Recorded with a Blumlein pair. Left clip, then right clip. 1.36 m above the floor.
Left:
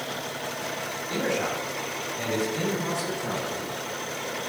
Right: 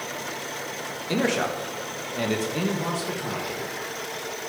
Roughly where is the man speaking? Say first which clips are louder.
Right 3 dB; ahead right.